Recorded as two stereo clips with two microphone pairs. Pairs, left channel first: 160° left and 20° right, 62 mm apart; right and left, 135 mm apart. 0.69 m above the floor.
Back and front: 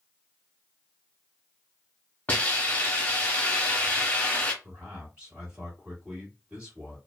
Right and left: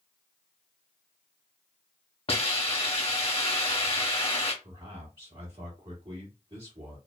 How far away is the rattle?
I don't hear a rattle.